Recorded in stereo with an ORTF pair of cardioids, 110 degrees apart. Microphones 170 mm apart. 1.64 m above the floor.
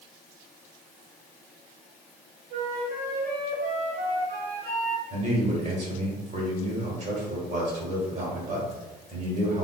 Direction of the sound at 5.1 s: 45° right.